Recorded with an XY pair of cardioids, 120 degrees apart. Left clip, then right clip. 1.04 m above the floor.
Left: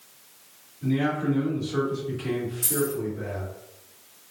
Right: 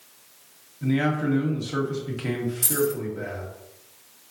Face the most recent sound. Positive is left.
turn(degrees=-35)